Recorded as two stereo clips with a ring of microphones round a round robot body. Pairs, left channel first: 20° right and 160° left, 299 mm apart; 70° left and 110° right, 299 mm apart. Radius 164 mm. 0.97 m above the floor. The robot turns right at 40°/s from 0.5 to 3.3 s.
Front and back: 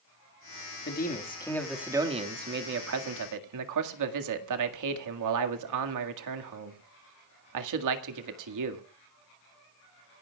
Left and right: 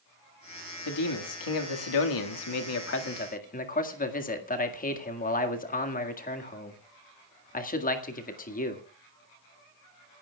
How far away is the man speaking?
About 1.9 m.